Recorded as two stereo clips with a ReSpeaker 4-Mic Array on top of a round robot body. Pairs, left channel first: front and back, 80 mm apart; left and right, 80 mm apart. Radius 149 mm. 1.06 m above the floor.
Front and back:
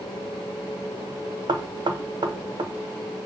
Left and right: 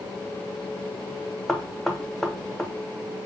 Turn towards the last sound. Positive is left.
turn(degrees=175)